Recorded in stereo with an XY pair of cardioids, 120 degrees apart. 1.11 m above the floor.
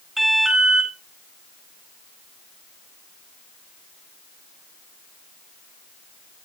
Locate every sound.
0.2 s an alarm: 10° right, 6 m